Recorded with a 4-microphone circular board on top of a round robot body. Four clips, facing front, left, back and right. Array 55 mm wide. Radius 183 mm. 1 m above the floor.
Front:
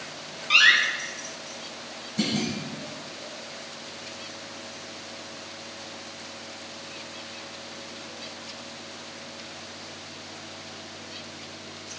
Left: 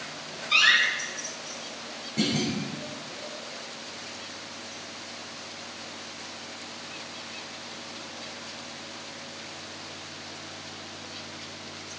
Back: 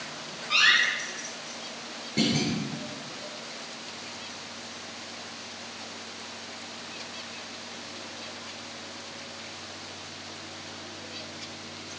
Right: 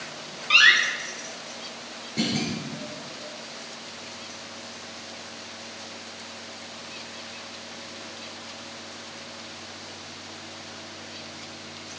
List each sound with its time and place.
0.5 s a door slam: 65° right, 3.5 m
2.2 s a clunk: 175° right, 5 m